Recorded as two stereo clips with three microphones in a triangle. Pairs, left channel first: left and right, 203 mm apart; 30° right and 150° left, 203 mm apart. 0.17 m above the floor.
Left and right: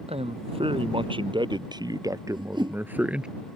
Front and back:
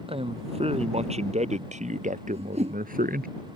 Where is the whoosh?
155° right.